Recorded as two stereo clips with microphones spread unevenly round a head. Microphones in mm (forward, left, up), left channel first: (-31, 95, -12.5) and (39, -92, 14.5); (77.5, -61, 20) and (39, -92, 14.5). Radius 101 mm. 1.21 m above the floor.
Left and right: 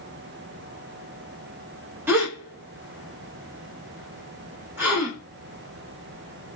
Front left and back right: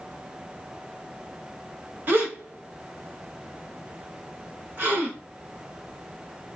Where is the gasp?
125° right, 0.7 m.